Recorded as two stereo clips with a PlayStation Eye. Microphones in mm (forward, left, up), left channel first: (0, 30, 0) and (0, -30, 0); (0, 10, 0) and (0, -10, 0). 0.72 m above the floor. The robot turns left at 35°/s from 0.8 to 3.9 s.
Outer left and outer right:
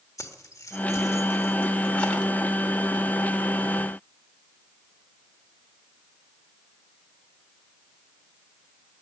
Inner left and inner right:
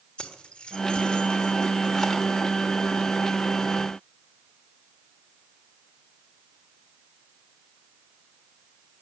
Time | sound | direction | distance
0.2 | keys jangling | 65° left (ahead or behind) | 1.3 m